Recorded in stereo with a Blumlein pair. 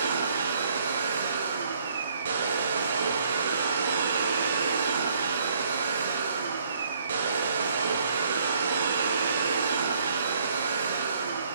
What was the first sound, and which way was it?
A machine running, 70° right.